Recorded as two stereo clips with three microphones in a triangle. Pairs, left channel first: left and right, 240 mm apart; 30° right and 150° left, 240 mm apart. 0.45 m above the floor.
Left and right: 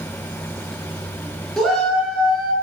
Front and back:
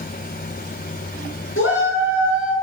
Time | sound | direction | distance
1.6 | a shout | straight ahead | 6 m